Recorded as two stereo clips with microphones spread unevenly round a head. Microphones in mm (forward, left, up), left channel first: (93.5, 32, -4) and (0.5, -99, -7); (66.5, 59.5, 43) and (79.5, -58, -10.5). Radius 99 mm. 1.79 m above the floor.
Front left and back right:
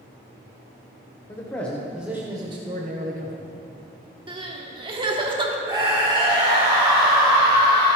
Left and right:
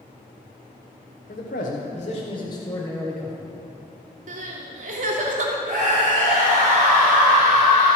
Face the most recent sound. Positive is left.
turn(degrees=-60)